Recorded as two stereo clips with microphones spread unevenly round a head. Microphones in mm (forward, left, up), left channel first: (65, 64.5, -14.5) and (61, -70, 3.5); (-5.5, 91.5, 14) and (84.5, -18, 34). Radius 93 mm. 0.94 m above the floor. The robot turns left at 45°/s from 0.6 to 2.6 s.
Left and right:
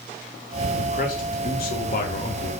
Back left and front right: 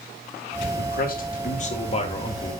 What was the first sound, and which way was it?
A man speaking, 140° left.